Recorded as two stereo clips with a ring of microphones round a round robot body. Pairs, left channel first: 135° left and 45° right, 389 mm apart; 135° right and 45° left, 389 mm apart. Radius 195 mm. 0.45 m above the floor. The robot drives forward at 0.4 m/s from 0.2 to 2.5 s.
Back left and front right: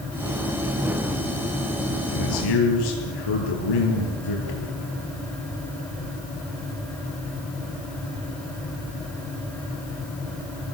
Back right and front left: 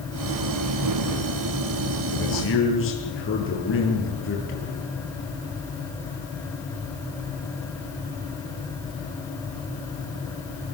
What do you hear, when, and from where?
2.1 s a man speaking: 165° left, 9.5 m